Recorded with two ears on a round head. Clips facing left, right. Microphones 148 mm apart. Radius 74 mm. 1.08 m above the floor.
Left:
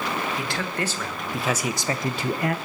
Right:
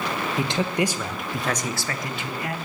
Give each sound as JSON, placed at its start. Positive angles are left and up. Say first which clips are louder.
{"t": 0.4, "sound": "a man speaking", "louder": "right 5 dB", "side_deg": -20, "distance_m": 1.1}